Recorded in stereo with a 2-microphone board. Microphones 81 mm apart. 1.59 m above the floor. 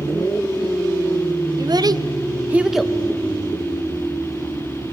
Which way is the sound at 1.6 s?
55° right (ahead or behind).